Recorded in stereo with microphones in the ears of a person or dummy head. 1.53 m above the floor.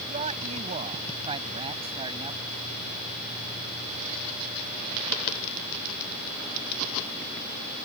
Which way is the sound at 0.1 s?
40° right (ahead or behind).